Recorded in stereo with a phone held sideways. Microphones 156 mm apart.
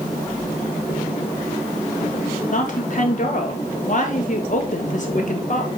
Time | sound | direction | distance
2.5 | a woman speaking | 55° left (ahead or behind) | 1.5 m